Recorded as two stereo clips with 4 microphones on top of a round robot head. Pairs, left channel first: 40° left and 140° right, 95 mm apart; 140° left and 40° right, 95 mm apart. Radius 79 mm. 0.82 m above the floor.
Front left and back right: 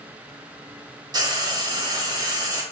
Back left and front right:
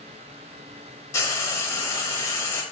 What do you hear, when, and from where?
1.1 s frying: 165° right, 1.4 m